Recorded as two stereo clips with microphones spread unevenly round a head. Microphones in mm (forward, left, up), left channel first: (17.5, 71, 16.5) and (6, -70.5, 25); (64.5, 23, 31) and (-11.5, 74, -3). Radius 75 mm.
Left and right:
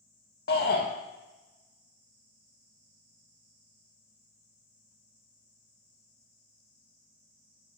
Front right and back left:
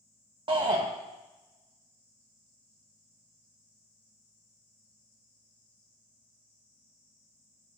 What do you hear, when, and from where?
0.5 s a shout: 115° left, 1.0 m